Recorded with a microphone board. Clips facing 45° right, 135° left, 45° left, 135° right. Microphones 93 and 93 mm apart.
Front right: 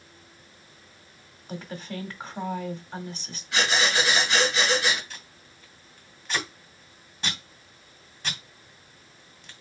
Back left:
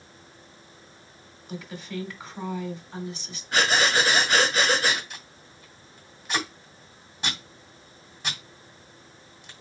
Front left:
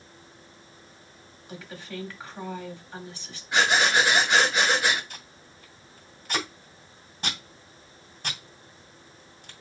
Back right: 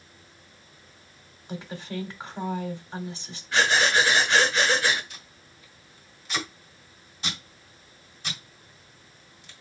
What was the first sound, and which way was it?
A woman speaking, 75° right.